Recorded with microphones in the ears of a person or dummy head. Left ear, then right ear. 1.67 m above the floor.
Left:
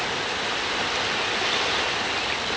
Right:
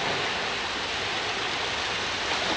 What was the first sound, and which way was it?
Only background noise.